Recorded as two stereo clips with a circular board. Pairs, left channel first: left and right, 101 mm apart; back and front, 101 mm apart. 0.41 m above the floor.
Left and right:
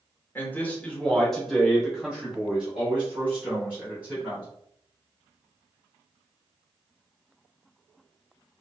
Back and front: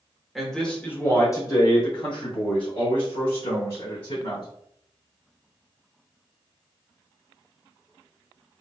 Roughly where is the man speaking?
Left.